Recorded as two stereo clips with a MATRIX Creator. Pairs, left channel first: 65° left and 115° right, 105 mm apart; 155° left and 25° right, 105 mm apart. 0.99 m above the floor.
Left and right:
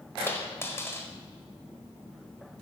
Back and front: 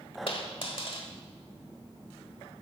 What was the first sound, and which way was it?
A dropped coin, 130° left.